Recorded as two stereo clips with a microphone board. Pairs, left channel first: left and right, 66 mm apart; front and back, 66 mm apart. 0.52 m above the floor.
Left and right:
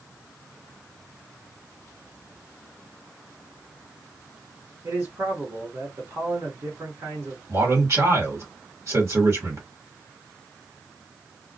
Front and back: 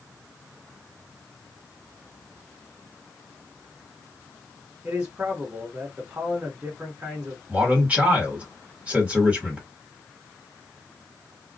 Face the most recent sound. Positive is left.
turn(degrees=-115)